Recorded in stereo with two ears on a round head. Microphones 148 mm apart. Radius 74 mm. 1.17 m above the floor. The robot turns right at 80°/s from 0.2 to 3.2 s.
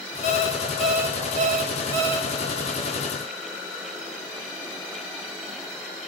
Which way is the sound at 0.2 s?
135° left.